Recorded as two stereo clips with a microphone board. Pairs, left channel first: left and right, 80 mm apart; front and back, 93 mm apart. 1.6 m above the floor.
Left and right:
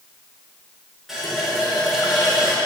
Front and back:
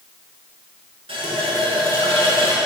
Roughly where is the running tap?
Behind.